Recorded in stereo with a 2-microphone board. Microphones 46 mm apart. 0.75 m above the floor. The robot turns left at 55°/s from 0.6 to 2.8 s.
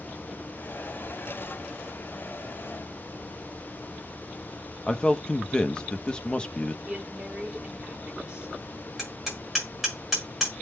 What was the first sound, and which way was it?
A man speaking, 25° left (ahead or behind).